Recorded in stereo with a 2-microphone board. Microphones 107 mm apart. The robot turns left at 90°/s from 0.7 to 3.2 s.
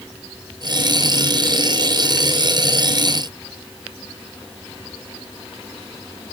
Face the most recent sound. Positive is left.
No sound to turn to.